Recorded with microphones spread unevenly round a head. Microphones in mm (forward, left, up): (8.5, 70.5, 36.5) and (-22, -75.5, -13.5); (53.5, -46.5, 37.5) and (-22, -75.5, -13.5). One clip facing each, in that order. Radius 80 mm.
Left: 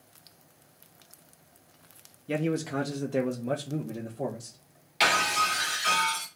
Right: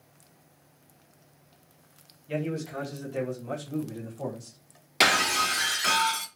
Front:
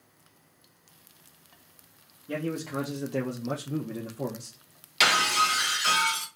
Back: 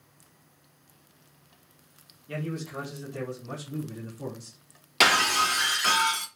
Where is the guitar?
I don't hear a guitar.